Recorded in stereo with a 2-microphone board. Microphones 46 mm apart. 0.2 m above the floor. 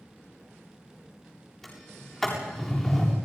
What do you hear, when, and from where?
1.6 s a sliding door: 5° left (ahead or behind), 7.5 m